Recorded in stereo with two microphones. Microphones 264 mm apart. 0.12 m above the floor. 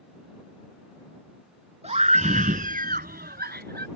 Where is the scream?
25° right (ahead or behind); by 3.9 s 40° right (ahead or behind).